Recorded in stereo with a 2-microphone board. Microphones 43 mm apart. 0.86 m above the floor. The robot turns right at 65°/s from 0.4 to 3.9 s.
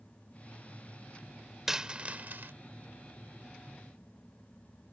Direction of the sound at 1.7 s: 10° right (ahead or behind).